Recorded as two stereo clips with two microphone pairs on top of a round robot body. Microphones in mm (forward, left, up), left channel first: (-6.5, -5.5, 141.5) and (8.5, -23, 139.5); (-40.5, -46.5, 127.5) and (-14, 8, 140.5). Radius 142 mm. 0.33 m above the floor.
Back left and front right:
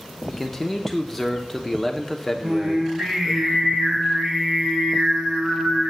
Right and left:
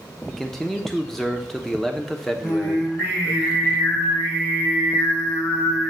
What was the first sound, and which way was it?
A man speaking, 150° right.